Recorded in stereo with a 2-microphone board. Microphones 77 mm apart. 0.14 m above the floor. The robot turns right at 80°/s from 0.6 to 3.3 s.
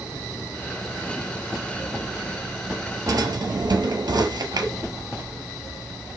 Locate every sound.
3.1 s a drawer: 45° right (ahead or behind), 1.0 m; by 4.7 s 60° right (ahead or behind), 1.0 m